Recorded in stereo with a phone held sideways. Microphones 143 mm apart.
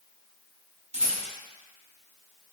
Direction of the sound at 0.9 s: 50° right (ahead or behind).